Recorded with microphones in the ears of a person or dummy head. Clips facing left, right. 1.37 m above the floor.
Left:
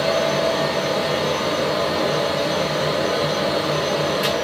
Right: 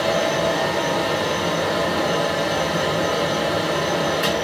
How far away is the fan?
About 1.4 m.